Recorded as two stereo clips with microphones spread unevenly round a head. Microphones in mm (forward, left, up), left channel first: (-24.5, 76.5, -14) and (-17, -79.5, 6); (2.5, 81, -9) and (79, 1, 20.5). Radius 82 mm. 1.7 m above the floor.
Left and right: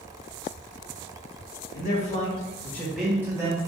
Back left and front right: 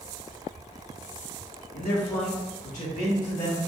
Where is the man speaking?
125° left, 1.3 m; by 3.6 s 145° right, 1.3 m.